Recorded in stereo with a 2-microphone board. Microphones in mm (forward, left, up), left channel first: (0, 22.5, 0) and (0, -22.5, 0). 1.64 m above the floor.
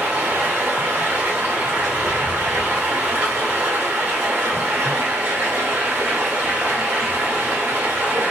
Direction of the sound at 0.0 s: 55° right (ahead or behind).